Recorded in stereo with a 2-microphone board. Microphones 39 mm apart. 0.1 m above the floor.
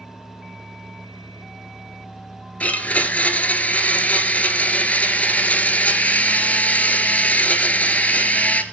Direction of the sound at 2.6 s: 45° left (ahead or behind).